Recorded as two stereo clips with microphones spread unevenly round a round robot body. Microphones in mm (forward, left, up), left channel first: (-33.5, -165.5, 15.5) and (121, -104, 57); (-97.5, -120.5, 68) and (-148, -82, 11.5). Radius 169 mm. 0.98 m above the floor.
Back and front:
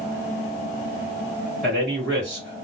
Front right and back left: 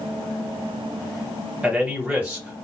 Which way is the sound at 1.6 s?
130° left.